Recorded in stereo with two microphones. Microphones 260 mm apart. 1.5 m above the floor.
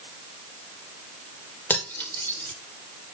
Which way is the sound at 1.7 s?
5° left (ahead or behind).